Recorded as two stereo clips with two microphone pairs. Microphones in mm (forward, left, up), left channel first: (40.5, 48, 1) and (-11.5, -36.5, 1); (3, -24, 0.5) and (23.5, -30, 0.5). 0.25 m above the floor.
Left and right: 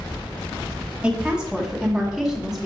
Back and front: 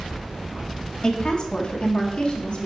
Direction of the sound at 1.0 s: 165° left.